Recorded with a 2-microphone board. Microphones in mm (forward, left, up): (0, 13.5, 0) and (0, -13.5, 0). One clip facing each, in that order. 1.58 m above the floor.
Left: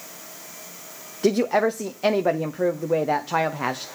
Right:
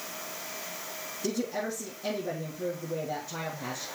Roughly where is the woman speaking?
Left.